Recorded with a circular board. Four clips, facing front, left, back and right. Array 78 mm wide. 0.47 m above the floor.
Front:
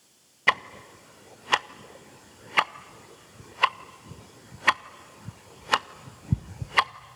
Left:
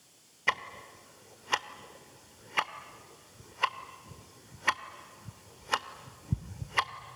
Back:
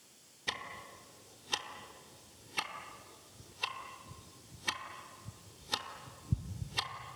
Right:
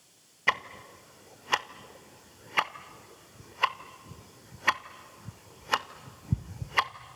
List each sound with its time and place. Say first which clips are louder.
0.5 s ticking: right 3 dB, front 16 dB; 10° right, 0.5 m